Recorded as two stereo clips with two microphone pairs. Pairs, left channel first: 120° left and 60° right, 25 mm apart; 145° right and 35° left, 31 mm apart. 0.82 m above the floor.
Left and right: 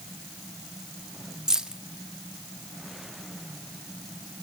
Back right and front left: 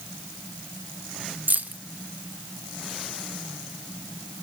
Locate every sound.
1.5 s keys jangling: straight ahead, 0.6 m